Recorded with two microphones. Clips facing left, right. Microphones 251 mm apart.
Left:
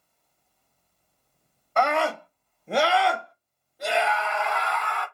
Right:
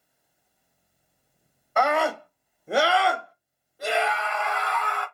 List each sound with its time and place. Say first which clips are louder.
1.8 s a scream: right 1 dB; 5° right (ahead or behind), 1.1 m; by 5.0 s centre (ahead or behind), 1.8 m